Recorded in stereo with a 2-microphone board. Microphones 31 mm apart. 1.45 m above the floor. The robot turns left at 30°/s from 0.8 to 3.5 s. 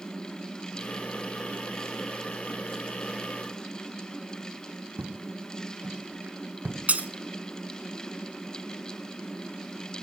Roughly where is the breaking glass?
Right.